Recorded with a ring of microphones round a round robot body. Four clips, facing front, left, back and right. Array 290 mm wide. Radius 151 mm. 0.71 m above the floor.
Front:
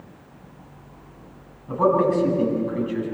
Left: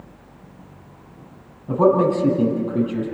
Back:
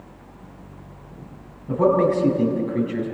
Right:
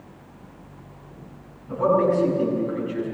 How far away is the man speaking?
About 7 m.